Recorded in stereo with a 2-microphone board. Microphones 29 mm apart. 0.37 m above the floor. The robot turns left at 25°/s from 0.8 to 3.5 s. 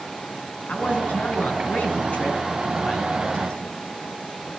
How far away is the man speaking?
About 3.5 m.